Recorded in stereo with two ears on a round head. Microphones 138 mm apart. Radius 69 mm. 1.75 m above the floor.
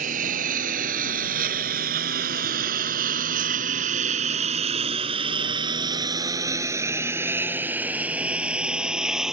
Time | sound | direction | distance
0.0 | a lawn mower | 55° right (ahead or behind) | ?